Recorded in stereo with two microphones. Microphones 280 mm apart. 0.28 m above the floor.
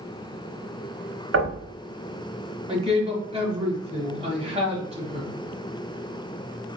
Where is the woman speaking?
20° right (ahead or behind), 1.3 m.